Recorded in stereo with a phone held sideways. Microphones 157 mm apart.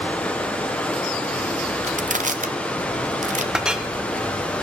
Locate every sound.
0.0 s running water: 10° left (ahead or behind), 0.9 m
1.8 s crushing: 55° right (ahead or behind), 0.6 m
3.5 s a clink: 5° right (ahead or behind), 0.6 m